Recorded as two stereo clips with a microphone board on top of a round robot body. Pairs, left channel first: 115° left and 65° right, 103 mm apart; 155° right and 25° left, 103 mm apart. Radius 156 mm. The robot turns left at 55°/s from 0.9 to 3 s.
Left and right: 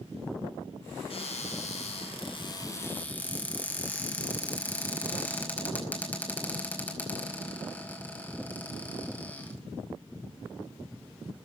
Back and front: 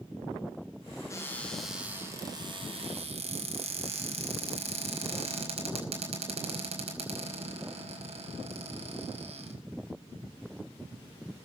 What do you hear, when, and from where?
1.1 s a cupboard door: 145° left, 5.5 m; by 9.5 s 40° left, 5.5 m